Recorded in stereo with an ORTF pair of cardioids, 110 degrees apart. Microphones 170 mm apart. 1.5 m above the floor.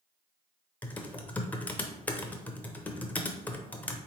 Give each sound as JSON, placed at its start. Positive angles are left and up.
{"t": 0.8, "sound": "typing on a keyboard", "azimuth_deg": 10, "distance_m": 0.7}